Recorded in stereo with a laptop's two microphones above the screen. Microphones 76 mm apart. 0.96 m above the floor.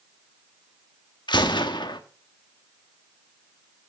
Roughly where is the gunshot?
Left.